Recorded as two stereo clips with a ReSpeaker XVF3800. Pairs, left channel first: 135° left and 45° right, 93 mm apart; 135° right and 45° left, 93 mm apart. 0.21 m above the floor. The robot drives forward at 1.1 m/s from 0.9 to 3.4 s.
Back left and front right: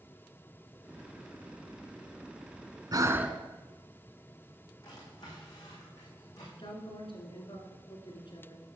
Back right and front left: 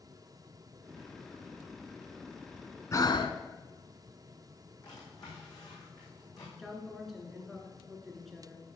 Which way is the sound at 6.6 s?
135° left.